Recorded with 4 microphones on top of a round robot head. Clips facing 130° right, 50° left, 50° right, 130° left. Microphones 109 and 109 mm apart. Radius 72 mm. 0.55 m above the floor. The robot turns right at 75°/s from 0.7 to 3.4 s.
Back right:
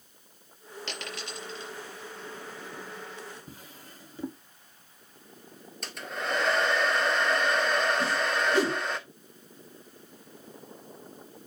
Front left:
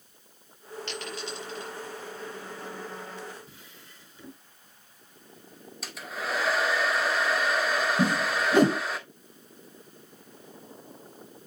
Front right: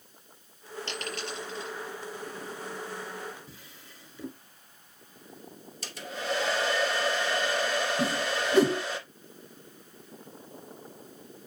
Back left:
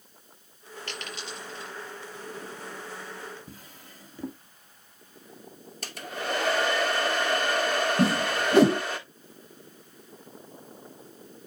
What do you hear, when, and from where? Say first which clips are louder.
0.9 s a dropped coin: front left 3 dB, front right 2 dB; 120° right, 5 m; by 1.7 s 55° right, 5 m
3.5 s a drawer: back right 4 dB, back left 3 dB; straight behind, 1.8 m
5.8 s a hair dryer: back right 1 dB, back left 1 dB; 135° left, 1.9 m
8.0 s a whoosh: front left 2 dB, back left 4 dB; 100° left, 0.6 m